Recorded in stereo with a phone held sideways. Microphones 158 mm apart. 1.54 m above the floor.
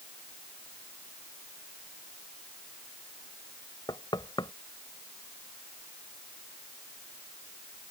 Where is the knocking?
25° left (ahead or behind).